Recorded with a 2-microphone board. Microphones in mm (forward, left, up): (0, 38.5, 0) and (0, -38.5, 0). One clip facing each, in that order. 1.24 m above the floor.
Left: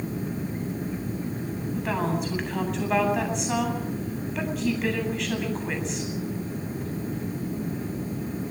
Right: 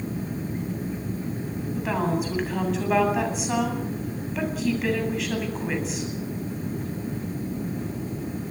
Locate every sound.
1.8 s a woman speaking: centre (ahead or behind), 8.5 m